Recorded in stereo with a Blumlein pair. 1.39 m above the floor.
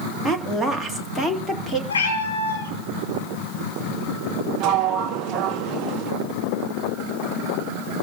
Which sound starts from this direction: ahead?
A woman speaking, at 0.2 s.